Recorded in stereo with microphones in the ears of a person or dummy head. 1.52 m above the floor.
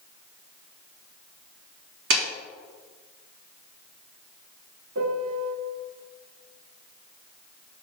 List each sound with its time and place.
2.1 s a clap: 70° right (ahead or behind), 3 m
5.0 s a piano: 60° right (ahead or behind), 0.9 m